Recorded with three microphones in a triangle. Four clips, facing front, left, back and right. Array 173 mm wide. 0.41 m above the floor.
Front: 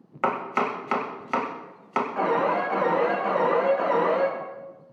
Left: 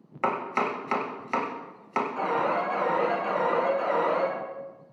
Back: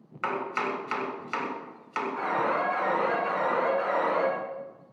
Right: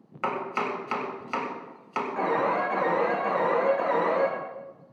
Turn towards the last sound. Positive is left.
turn(degrees=-20)